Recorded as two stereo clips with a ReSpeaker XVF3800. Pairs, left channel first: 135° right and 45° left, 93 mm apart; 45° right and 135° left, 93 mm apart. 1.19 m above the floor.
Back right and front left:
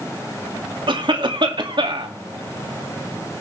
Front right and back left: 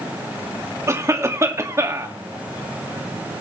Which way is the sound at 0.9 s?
75° left.